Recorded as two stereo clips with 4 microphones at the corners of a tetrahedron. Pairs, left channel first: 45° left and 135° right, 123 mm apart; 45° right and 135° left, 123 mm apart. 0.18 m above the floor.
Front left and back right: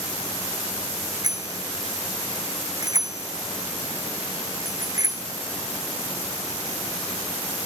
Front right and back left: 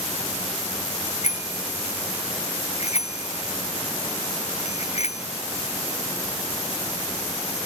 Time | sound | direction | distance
1.2 | a bicycle bell | 75° right | ?